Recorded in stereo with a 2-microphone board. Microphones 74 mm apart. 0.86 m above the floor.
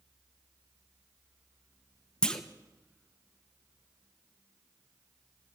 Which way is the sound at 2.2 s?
10° left (ahead or behind).